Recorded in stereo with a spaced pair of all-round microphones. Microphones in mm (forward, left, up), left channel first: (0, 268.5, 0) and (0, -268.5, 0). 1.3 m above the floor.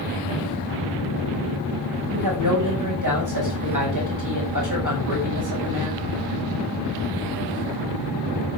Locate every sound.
2.1 s a woman speaking: 35° right (ahead or behind), 9 m